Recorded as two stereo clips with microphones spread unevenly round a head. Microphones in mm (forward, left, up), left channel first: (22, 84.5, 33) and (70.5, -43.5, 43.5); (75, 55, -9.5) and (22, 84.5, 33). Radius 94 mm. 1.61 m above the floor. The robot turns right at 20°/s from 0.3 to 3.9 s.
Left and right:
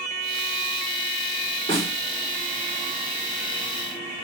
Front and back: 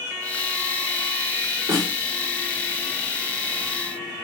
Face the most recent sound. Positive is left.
turn(degrees=-140)